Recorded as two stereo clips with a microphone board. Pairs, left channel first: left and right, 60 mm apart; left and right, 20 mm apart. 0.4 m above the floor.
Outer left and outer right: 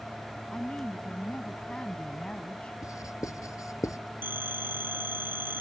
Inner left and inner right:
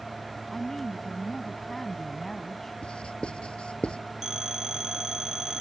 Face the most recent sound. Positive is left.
turn(degrees=-35)  # may be behind; listen again after turning